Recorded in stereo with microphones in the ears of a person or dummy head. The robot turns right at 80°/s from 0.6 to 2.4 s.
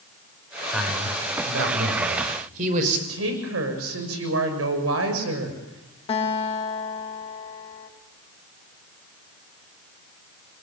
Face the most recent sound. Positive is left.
turn(degrees=25)  # may be behind; listen again after turning